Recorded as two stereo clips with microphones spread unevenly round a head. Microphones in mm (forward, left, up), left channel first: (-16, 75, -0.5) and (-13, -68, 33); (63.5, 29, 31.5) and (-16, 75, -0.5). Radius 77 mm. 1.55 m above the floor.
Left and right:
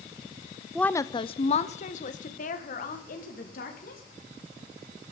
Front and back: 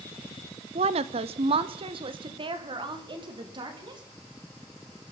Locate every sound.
0.8 s a woman speaking: straight behind, 0.5 m; by 4.0 s 115° left, 3 m